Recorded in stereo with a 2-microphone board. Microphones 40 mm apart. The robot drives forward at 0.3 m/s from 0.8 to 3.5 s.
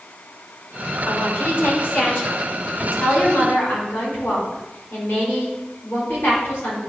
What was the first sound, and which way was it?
A woman speaking, 75° left (ahead or behind).